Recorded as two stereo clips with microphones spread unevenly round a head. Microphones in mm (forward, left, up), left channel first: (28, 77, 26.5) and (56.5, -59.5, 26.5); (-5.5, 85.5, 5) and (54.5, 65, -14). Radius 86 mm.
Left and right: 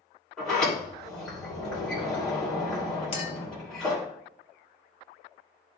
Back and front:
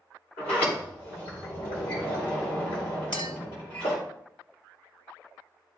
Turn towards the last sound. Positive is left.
turn(degrees=160)